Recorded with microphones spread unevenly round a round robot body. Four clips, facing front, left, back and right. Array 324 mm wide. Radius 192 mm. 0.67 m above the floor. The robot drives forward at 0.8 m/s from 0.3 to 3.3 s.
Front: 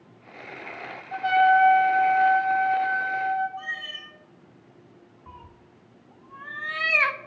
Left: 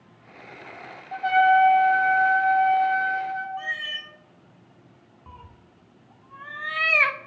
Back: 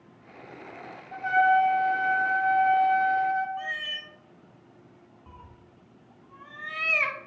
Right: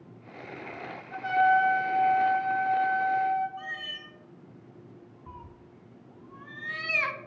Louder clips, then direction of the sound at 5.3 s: Left 1 dB, front 4 dB; 65° left.